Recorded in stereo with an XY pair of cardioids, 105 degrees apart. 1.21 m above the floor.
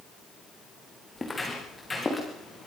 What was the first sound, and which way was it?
Footsteps, 20° left.